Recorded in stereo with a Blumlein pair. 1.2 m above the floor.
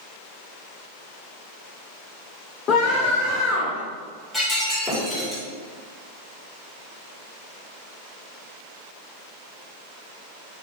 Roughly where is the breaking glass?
Ahead.